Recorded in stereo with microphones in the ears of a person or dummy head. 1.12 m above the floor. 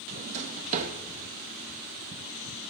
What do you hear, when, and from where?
0.1 s a drawer: 35° right (ahead or behind), 0.6 m